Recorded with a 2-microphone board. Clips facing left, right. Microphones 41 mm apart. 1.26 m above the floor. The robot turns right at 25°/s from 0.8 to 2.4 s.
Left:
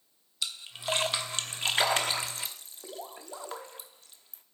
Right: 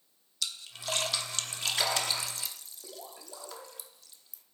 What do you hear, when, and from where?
0.4 s a splash: 25° left (ahead or behind), 0.9 m; by 4.4 s 40° left (ahead or behind), 0.9 m